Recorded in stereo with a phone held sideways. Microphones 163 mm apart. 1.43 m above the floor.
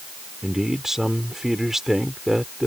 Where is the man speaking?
Centre (ahead or behind).